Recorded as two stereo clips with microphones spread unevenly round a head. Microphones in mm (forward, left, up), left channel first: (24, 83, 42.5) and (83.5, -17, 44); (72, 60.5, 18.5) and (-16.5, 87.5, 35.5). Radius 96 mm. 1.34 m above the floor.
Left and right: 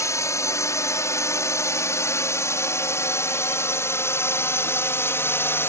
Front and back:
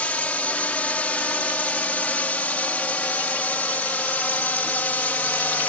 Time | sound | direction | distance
0.0 | a drone | 55° left | ?